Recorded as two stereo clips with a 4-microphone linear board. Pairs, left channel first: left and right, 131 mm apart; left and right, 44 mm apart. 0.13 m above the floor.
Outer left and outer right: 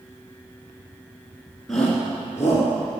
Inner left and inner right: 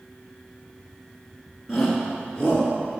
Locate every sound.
1.7 s a shout: 5° left (ahead or behind), 1.6 m; by 2.7 s 25° left (ahead or behind), 1.9 m